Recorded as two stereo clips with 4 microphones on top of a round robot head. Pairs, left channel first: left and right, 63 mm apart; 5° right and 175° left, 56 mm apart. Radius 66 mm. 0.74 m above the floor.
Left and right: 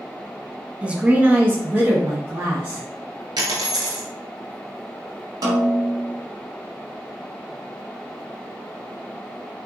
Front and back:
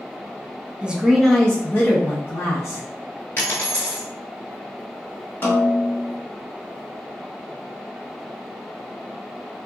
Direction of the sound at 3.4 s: 75° right.